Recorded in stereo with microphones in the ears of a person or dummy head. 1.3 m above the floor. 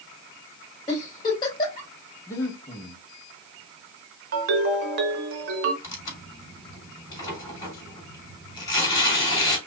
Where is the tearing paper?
20° left (ahead or behind), 3 m.